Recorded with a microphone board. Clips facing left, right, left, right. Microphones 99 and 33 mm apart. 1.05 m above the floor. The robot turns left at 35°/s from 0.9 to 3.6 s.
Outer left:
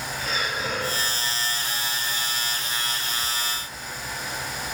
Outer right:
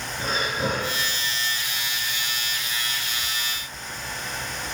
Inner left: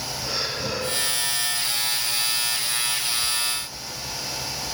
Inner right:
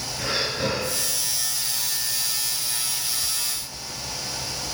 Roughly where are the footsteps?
I don't hear footsteps.